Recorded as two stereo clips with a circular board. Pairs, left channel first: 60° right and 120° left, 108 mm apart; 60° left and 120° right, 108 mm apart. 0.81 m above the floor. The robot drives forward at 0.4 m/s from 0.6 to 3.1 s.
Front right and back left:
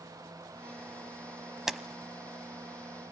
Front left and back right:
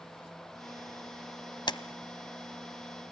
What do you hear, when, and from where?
1.7 s a camera shutter: 35° left, 0.9 m